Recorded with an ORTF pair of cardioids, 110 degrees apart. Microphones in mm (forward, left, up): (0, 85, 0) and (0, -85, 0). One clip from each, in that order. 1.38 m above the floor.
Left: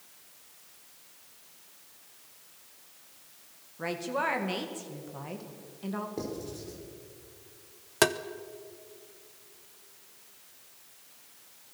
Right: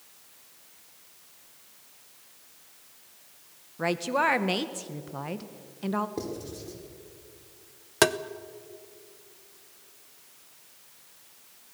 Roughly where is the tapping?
Ahead.